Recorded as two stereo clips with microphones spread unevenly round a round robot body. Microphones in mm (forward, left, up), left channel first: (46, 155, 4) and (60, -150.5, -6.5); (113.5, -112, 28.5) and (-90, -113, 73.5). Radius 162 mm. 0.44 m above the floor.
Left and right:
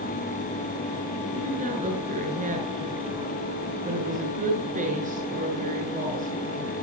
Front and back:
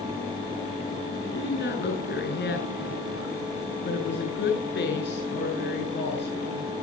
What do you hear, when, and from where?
1.3 s a woman speaking: 25° right, 7 m